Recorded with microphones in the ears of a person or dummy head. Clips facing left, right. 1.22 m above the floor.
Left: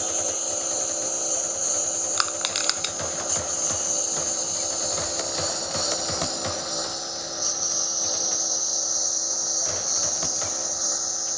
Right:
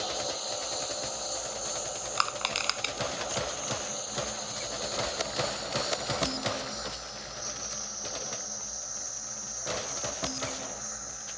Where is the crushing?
25° left (ahead or behind).